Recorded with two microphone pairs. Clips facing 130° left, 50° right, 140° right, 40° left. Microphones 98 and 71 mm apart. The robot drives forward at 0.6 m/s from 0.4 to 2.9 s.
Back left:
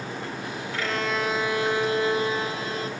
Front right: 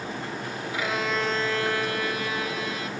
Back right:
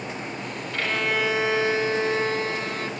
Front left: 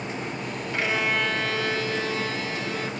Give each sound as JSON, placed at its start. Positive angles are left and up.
{"t": 0.7, "sound": "a violin", "azimuth_deg": 5, "distance_m": 0.6}